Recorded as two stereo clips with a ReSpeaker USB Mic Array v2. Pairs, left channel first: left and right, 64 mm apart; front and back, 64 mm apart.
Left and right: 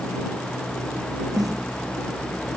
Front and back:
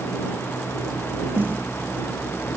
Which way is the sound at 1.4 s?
115° right.